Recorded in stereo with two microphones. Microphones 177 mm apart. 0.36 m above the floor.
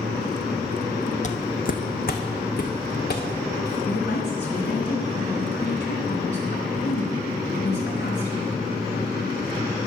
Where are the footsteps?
45° left (ahead or behind), 0.8 m; by 3.8 s 65° left (ahead or behind), 2.5 m.